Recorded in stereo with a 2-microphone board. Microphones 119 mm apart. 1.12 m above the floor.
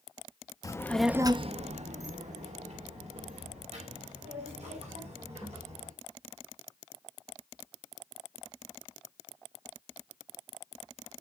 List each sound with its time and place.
0.6 s a child speaking: 30° left (ahead or behind), 0.8 m; by 5.9 s 70° right (ahead or behind), 6 m